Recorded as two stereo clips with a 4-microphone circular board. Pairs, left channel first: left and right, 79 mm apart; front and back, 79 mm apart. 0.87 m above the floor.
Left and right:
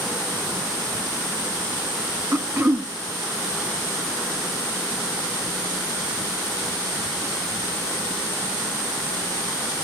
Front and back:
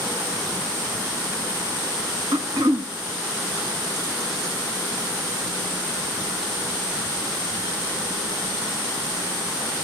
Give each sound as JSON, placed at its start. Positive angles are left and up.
{"t": 2.3, "sound": "throat clearing", "azimuth_deg": -155, "distance_m": 1.2}